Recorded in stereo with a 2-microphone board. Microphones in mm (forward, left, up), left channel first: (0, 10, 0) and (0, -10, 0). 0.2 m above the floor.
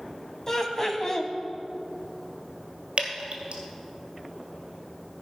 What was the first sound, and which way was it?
Laughter, 20° left (ahead or behind).